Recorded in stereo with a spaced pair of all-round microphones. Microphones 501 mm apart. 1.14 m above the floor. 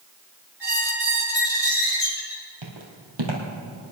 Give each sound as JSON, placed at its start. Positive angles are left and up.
{"t": 0.6, "sound": "a squeak", "side_deg": 40, "distance_m": 3.5}
{"t": 2.6, "sound": "footsteps", "side_deg": -65, "distance_m": 2.5}